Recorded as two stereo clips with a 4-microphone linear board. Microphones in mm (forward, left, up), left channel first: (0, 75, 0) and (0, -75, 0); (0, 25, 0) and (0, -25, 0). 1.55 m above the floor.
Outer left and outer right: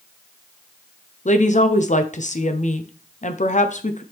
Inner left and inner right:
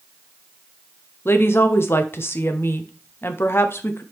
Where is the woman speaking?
55° left (ahead or behind), 0.9 m.